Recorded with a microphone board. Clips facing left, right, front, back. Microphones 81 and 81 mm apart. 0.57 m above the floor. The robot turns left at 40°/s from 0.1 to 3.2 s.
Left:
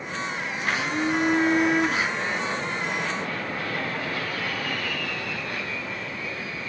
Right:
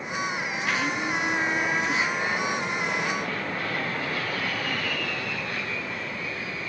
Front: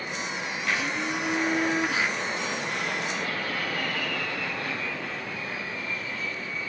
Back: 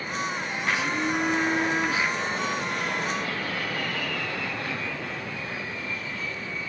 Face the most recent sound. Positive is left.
turn(degrees=15)